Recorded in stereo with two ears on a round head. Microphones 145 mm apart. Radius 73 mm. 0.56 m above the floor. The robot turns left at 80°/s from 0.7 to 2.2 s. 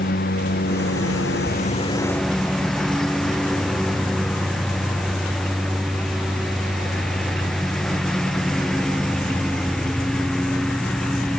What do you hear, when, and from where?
0.0 s a lawn mower: 125° left; by 11.4 s 5° left